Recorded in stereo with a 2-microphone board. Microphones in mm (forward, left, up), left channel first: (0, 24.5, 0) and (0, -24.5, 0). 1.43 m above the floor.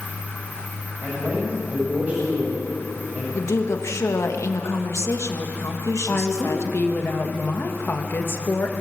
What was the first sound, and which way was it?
A man speaking, 30° right (ahead or behind).